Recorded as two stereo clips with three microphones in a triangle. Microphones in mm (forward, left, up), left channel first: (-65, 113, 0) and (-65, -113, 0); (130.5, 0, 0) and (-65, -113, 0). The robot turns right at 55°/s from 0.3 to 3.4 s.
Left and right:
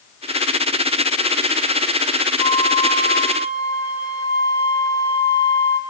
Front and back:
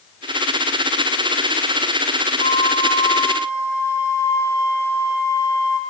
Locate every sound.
2.4 s a flute: 45° left, 1.8 m; by 5.8 s 100° left, 1.8 m